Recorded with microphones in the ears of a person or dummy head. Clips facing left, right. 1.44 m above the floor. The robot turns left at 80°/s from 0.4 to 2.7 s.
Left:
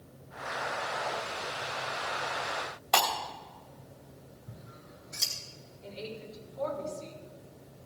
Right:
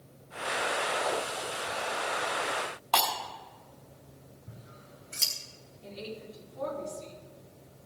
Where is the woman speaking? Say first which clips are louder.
Even; 50° right (ahead or behind), 5 m.